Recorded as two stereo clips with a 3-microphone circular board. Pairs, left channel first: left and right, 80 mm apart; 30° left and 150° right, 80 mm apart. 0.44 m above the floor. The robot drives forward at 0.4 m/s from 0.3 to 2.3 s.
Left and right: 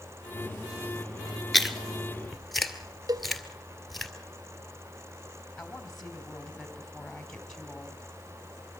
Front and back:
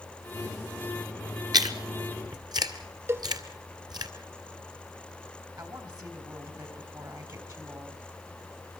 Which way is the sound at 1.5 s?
Straight behind.